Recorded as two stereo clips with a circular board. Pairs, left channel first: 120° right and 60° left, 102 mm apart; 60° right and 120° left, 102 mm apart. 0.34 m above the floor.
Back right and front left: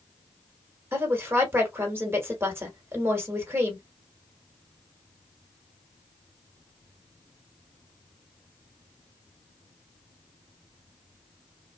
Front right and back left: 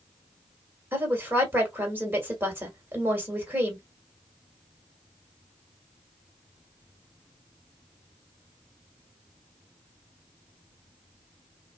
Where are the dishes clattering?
I don't hear dishes clattering.